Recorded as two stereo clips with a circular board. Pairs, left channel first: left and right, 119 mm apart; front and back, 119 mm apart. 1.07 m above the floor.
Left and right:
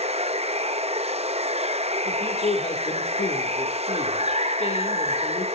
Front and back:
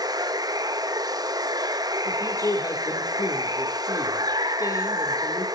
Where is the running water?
120° right, 0.7 m.